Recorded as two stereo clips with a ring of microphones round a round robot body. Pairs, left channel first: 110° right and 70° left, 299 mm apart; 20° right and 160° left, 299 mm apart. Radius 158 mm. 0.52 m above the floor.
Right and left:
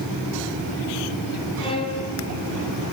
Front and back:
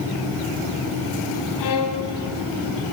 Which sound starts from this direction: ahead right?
A violin, at 1.6 s.